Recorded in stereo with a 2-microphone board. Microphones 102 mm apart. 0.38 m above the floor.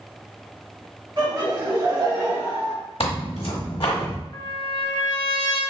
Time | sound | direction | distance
1.2 | laughter | 40° right (ahead or behind) | 1.8 m
3.0 | tearing paper | 70° left (ahead or behind) | 0.8 m
4.3 | a trumpet | 45° left (ahead or behind) | 0.7 m